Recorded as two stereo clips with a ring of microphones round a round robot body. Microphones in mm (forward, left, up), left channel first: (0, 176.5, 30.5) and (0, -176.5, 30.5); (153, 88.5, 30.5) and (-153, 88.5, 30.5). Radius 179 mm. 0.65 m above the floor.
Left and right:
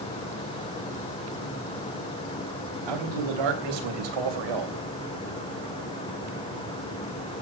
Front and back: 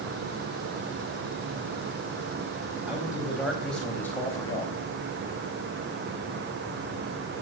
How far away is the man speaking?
About 4 m.